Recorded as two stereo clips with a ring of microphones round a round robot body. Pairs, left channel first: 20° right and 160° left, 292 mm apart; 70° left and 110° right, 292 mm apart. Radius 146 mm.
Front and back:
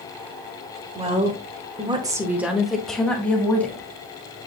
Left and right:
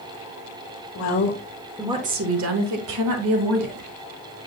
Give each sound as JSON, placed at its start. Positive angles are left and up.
{"t": 0.9, "sound": "a woman speaking", "azimuth_deg": 90, "distance_m": 1.4}